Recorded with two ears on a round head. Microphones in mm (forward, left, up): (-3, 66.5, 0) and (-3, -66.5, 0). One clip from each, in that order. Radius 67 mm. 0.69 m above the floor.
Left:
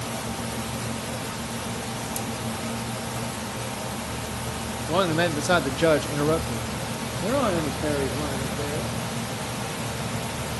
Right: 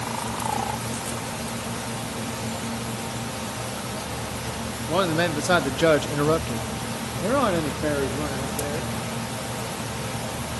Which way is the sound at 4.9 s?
Centre (ahead or behind).